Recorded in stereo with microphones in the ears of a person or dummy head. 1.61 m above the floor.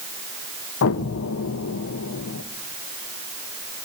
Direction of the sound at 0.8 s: 65° left (ahead or behind).